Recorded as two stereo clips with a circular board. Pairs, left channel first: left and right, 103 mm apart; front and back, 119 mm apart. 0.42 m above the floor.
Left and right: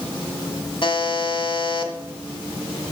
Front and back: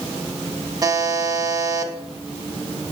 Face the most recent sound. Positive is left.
turn(degrees=125)